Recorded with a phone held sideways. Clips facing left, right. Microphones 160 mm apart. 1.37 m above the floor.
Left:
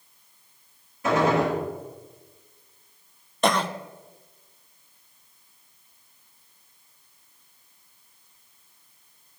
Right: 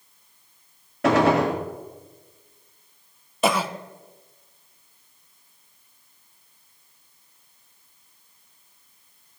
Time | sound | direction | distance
1.0 | a gunshot | 75° right (ahead or behind) | 1.7 m
3.4 | a cough | 5° right (ahead or behind) | 0.6 m